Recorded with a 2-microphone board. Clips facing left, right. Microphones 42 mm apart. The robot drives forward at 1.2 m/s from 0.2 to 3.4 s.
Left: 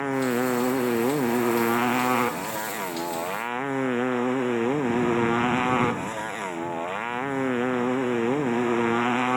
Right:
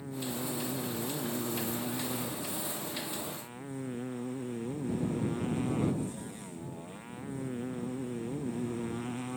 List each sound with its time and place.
0.0 s a motorcycle: 85° left; by 9.4 s 70° left (ahead or behind)